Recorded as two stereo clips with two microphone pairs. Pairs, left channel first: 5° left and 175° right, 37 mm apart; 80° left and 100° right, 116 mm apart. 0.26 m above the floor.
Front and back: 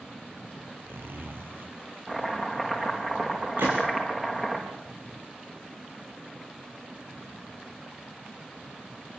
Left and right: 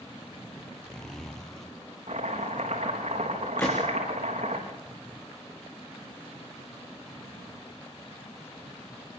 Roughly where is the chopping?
Right.